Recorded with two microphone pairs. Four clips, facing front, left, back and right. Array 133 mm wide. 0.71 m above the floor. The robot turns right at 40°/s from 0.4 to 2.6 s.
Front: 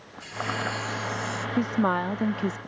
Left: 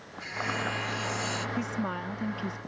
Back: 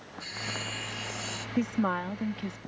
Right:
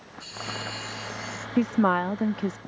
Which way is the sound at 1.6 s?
75° right.